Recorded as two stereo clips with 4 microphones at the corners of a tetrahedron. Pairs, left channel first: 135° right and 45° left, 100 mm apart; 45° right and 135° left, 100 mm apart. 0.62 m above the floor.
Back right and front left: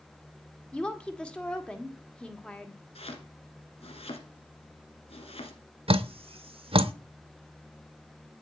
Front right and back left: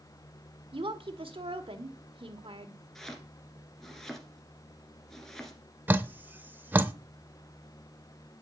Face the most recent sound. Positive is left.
turn(degrees=65)